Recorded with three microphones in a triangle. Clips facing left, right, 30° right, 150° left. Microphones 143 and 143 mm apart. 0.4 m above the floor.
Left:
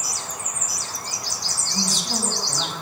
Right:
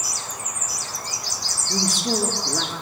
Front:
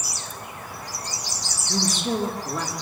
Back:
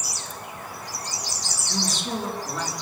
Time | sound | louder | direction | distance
1.7 | a man speaking | right 5 dB, front 4 dB | 65° right | 7.5 m